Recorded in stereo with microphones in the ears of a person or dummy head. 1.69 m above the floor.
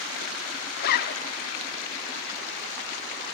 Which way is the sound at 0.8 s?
50° left (ahead or behind).